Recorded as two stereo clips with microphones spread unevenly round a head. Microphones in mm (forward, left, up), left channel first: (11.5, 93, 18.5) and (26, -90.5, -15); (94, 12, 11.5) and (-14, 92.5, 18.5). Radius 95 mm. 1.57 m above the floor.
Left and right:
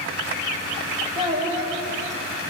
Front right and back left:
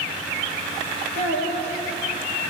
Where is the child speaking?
20° right, 3.5 m.